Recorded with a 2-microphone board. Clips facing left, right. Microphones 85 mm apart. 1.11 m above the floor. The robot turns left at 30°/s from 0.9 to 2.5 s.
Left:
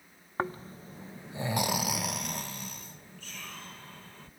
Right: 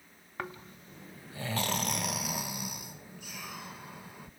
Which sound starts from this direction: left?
Snoring, at 0.4 s.